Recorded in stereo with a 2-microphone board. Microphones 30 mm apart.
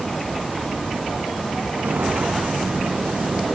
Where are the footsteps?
75° right (ahead or behind), 1.9 m; by 3.5 s 60° right (ahead or behind), 2.5 m.